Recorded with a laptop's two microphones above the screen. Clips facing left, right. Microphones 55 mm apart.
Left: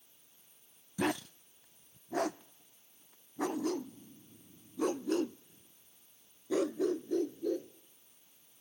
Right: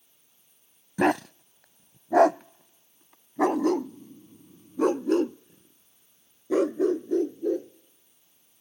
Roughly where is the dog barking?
Right.